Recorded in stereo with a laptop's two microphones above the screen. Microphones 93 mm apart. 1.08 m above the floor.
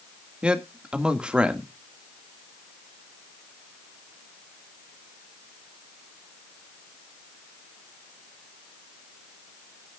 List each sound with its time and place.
0.4 s a man speaking: 10° right (ahead or behind), 2.0 m